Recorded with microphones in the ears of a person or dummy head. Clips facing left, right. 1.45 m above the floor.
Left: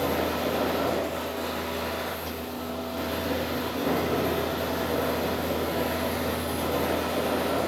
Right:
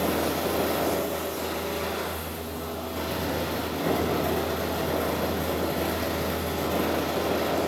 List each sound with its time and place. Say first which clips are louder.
0.0 s a fan: right 1 dB; 90° right, 4.5 m